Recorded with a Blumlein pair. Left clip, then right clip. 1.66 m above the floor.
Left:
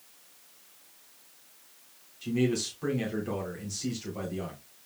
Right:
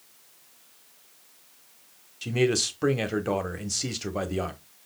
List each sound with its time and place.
2.2 s a man speaking: 60° right, 1.2 m